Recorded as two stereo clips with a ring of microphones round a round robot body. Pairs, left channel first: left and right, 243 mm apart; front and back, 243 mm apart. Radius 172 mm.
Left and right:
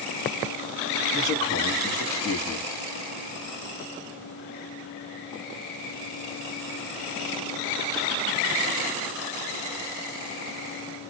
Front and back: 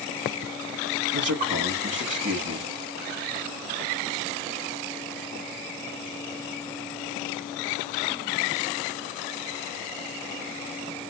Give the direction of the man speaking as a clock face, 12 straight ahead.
6 o'clock.